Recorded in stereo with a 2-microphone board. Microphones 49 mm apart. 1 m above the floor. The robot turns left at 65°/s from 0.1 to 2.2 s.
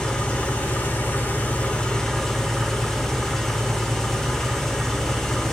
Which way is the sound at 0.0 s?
155° left.